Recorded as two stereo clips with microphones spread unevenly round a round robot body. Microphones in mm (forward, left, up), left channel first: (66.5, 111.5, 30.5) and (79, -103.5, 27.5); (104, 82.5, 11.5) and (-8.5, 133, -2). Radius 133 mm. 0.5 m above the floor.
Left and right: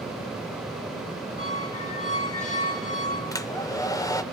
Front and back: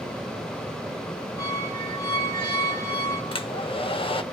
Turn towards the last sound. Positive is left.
turn(degrees=20)